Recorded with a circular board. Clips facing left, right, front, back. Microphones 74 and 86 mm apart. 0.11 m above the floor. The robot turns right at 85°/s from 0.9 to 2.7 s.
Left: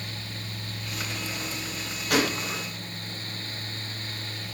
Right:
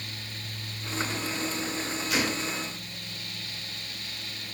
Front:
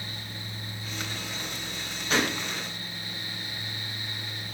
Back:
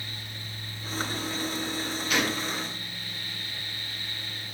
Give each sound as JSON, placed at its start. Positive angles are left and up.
{"t": 2.1, "sound": "a gunshot", "azimuth_deg": 60, "distance_m": 3.5}